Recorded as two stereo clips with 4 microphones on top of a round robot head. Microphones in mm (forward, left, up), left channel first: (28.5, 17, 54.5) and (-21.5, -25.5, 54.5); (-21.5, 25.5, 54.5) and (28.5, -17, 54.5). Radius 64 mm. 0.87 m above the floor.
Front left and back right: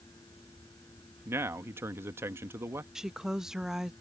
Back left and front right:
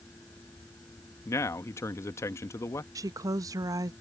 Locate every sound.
1.2 s a man speaking: 175° left
3.0 s a woman speaking: 55° right